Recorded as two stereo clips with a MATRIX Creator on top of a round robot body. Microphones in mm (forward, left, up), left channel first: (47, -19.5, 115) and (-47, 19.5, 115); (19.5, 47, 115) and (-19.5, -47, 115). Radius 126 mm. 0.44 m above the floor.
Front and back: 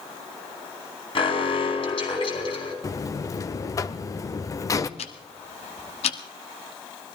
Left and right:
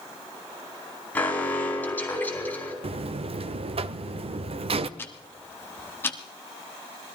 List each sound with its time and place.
1.1 s an alarm: 5° right, 4 m
2.8 s a buzzer: 85° right, 0.5 m
5.0 s ticking: 5° right, 0.9 m